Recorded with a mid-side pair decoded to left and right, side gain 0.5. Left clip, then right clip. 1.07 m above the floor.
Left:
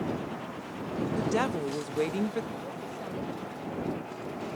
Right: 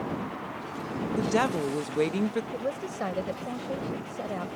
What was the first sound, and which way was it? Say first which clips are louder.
A woman speaking: right 4 dB; 20° right.